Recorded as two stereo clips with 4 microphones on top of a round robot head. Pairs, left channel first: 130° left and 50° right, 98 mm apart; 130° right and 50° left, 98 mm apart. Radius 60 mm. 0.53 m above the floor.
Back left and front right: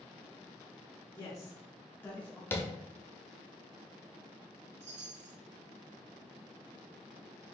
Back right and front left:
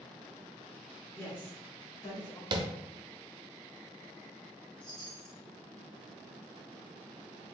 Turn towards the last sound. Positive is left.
turn(degrees=-50)